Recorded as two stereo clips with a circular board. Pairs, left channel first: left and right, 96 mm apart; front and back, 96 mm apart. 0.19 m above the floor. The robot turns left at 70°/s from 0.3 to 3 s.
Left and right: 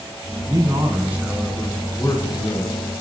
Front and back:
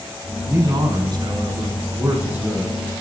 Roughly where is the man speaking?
Behind right.